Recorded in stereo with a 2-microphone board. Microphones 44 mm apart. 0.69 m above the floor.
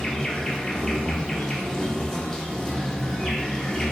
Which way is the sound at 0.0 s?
15° left (ahead or behind).